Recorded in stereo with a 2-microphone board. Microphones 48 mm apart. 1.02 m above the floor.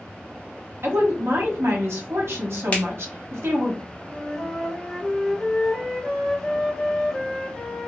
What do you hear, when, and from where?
0.8 s a woman speaking: 60° right (ahead or behind), 0.9 m
2.7 s a finger snap: 30° left (ahead or behind), 1.0 m
4.1 s a flute: 5° left (ahead or behind), 0.6 m